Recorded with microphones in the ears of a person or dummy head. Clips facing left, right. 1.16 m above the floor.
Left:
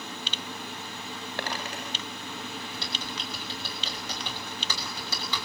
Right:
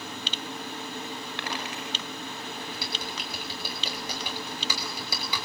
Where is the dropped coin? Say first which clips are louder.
Left 3 dB; 35° left (ahead or behind), 5.5 m.